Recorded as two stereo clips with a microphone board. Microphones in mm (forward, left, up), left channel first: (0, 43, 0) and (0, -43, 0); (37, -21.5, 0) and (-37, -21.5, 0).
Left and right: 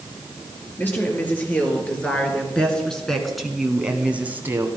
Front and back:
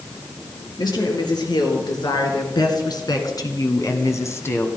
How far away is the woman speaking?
About 4.5 m.